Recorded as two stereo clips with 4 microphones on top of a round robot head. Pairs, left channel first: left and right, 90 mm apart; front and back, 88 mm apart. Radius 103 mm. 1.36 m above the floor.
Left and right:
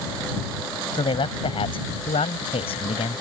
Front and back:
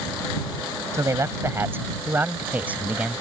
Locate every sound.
0.9 s a man speaking: 120° left; by 3.2 s 100° left